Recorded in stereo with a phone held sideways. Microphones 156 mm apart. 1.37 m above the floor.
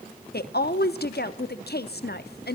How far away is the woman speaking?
About 0.7 m.